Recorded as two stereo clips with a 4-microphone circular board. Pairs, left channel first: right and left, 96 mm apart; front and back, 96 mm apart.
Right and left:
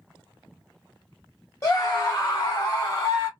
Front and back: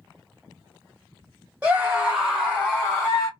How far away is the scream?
About 1.4 m.